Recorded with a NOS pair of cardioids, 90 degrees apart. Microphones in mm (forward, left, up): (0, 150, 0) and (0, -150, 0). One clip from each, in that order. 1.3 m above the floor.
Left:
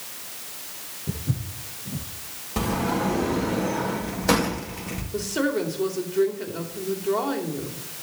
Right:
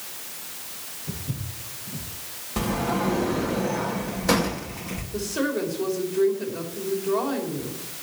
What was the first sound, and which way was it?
Footsteps, 65° left.